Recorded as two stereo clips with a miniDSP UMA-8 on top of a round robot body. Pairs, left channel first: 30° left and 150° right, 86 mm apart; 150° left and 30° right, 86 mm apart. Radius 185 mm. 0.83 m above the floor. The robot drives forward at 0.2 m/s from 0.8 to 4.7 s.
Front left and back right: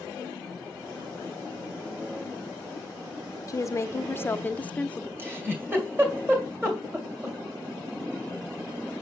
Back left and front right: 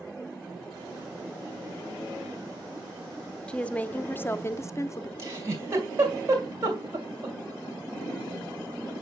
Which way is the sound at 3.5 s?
70° left.